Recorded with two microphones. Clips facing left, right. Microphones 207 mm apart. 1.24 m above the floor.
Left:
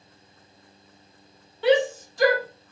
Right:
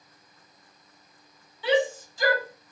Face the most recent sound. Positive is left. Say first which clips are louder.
# left 4 dB
turn(degrees=65)  # may be behind; listen again after turning